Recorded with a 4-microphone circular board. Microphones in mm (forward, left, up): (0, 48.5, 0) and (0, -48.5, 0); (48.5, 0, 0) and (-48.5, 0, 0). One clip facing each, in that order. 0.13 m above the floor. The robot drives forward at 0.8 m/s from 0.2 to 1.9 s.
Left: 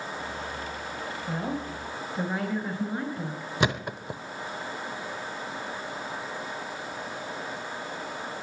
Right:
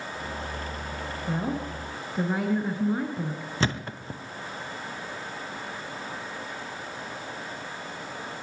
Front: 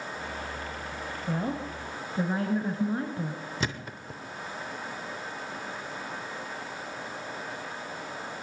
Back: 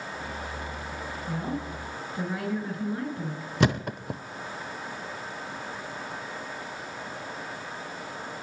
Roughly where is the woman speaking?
Ahead.